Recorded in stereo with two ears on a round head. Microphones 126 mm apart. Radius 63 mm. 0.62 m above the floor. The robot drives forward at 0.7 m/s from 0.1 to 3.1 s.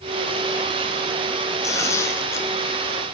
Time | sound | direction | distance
1.6 | tearing paper | 25° left (ahead or behind) | 4 m